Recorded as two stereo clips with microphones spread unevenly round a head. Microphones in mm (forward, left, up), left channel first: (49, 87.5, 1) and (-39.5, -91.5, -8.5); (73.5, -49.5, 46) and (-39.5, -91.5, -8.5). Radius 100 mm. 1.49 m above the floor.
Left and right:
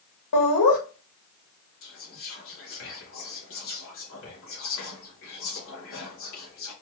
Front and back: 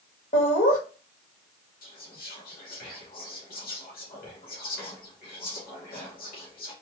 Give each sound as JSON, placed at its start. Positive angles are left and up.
{"t": 0.3, "sound": "laughter", "azimuth_deg": 75, "distance_m": 1.6}
{"t": 1.8, "sound": "whispering", "azimuth_deg": 40, "distance_m": 1.2}